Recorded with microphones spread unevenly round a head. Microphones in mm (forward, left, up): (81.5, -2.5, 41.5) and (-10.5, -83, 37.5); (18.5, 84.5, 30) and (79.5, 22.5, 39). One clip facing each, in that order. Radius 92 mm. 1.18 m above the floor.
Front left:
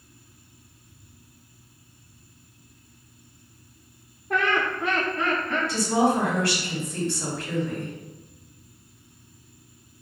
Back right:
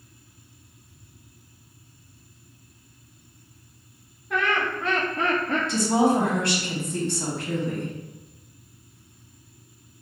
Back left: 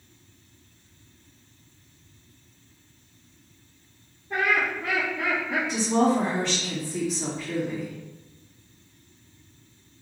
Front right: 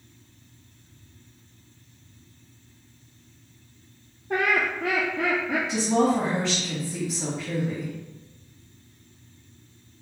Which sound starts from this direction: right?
A woman speaking, at 5.7 s.